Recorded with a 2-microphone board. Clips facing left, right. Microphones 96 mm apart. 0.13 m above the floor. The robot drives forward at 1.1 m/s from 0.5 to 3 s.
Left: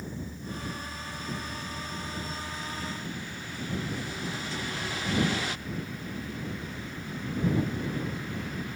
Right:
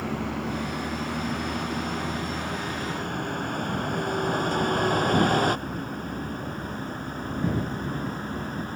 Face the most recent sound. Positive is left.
turn(degrees=-40)  # may be behind; listen again after turning